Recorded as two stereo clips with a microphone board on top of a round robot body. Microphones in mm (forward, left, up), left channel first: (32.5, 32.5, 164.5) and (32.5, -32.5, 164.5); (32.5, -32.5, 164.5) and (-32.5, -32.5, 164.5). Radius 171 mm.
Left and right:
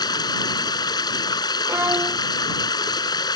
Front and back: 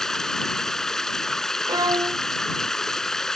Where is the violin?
150° right.